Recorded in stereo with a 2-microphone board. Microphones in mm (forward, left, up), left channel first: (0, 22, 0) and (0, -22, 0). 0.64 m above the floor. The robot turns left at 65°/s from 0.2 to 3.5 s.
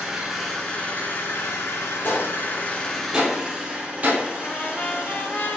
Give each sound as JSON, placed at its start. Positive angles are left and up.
{"t": 0.0, "sound": "an engine running", "azimuth_deg": -170, "distance_m": 2.5}
{"t": 2.0, "sound": "a gunshot", "side_deg": 50, "distance_m": 3.5}
{"t": 4.4, "sound": "a trumpet", "side_deg": 45, "distance_m": 1.2}